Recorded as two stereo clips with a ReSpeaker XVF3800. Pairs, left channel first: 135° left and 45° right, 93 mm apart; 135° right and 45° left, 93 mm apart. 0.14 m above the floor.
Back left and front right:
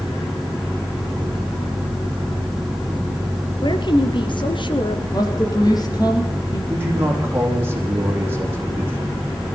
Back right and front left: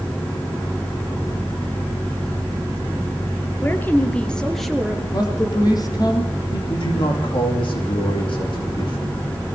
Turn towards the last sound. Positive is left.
turn(degrees=-110)